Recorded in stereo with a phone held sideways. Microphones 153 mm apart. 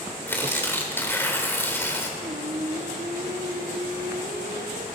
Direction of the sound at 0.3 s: 15° left (ahead or behind).